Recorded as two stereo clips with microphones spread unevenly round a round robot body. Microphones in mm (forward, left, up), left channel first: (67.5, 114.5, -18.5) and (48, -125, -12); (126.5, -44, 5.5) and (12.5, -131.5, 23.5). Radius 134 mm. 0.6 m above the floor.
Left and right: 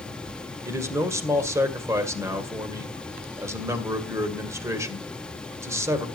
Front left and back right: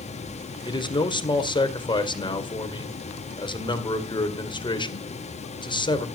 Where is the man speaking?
15° right, 2 m.